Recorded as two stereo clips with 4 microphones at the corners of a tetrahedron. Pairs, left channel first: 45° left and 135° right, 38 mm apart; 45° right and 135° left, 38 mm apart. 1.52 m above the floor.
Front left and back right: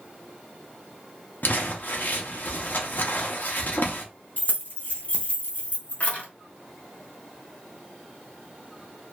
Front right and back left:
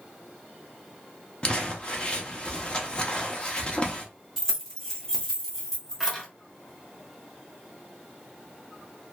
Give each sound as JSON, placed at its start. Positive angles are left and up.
{"t": 1.4, "sound": "crumpling", "azimuth_deg": 20, "distance_m": 0.6}
{"t": 4.4, "sound": "keys jangling", "azimuth_deg": 30, "distance_m": 0.8}